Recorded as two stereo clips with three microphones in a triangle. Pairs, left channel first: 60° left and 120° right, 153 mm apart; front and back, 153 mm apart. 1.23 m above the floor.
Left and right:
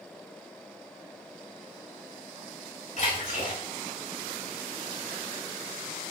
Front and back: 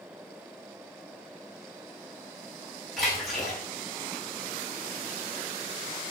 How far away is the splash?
About 8.5 m.